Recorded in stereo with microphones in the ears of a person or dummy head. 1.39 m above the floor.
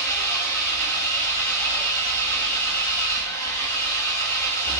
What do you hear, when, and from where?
0.0 s an engine running: 20° left (ahead or behind), 1.9 m